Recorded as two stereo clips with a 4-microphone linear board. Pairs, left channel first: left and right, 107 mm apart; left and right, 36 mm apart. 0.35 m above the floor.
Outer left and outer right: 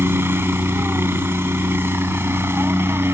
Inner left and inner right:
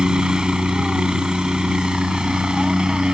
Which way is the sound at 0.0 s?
20° right (ahead or behind).